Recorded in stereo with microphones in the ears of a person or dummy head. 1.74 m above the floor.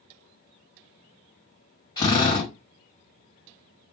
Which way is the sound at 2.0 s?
25° left (ahead or behind).